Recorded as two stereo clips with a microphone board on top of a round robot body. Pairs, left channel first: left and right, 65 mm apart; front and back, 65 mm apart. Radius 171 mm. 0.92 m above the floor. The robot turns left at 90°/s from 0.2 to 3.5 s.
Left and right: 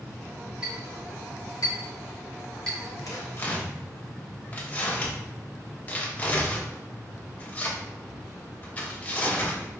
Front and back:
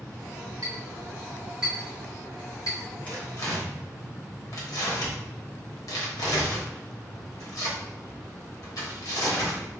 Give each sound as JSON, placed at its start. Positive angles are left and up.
{"t": 0.6, "sound": "a clink", "azimuth_deg": -165, "distance_m": 2.5}
{"t": 3.1, "sound": "tearing paper", "azimuth_deg": 65, "distance_m": 1.1}